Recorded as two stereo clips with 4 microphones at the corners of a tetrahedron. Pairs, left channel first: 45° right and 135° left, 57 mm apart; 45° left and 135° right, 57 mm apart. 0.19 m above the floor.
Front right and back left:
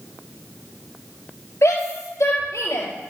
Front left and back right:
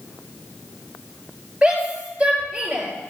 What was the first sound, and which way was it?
A shout, 70° right.